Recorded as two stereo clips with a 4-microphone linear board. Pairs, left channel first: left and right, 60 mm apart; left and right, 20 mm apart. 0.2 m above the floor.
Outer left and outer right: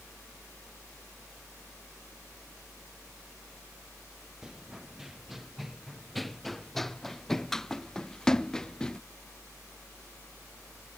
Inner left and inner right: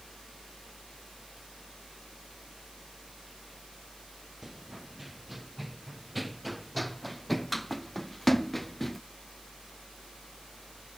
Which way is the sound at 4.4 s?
10° right (ahead or behind).